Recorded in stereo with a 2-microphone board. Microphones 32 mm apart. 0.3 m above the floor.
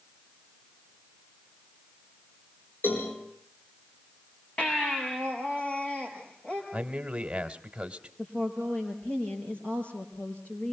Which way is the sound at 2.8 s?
80° left.